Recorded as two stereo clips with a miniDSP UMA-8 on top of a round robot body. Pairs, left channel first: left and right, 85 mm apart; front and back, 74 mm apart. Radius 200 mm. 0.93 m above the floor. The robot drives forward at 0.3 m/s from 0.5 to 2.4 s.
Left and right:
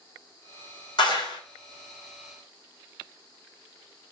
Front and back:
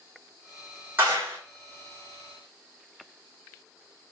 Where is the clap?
120° left, 1.6 m.